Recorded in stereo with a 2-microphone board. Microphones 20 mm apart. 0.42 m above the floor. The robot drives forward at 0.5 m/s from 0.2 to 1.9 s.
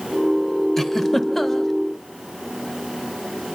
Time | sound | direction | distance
0.8 | a giggle | 10° left (ahead or behind) | 1.7 m